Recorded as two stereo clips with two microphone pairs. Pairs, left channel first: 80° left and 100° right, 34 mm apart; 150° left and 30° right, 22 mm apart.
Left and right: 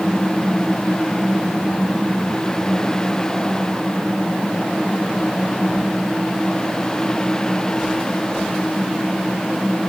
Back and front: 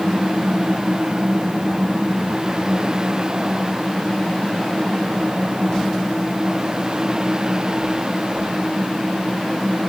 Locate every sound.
Only background noise.